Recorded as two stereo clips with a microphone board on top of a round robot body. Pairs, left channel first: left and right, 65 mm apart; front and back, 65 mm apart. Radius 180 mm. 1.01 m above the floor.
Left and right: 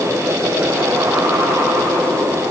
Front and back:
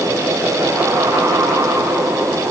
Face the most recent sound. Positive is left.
No sound to turn to.